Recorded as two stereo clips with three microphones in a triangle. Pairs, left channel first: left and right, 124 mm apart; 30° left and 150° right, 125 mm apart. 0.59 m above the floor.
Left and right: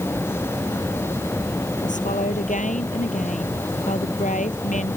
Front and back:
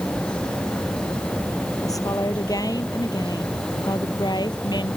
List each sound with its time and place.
1.8 s a woman speaking: 90° left; by 5.0 s 85° left